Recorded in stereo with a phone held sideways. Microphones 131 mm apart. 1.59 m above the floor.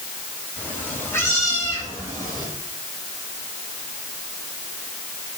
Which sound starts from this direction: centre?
A cat meowing, at 0.6 s.